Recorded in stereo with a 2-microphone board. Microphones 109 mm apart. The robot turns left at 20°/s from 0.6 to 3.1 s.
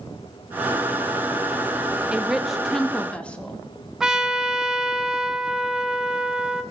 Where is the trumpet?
5° right (ahead or behind), 0.9 m.